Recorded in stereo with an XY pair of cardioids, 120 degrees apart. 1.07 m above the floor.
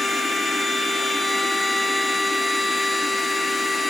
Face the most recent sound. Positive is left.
turn(degrees=5)